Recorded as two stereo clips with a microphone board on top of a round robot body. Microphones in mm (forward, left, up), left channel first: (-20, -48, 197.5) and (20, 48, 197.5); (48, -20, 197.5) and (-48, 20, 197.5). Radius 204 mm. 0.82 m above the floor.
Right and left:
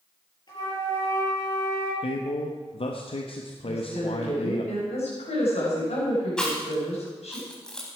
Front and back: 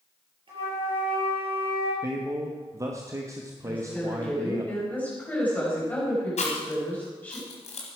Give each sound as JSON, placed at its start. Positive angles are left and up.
{"t": 0.5, "sound": "a flute", "azimuth_deg": -160, "distance_m": 6.0}
{"t": 2.0, "sound": "a man speaking", "azimuth_deg": -140, "distance_m": 1.2}
{"t": 3.6, "sound": "a woman speaking", "azimuth_deg": -95, "distance_m": 4.5}
{"t": 6.4, "sound": "chewing", "azimuth_deg": -30, "distance_m": 1.1}